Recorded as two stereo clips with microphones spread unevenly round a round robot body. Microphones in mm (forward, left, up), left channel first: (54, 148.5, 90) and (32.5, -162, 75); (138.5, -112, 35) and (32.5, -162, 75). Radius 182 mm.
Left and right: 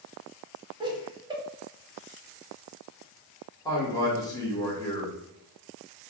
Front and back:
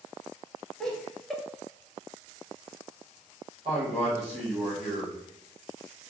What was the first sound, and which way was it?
Laughter, 30° right.